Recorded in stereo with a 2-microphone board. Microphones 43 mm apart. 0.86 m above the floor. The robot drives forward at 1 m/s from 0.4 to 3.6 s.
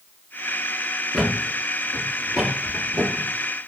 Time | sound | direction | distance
1.1 | a thud | 10° left (ahead or behind) | 1.9 m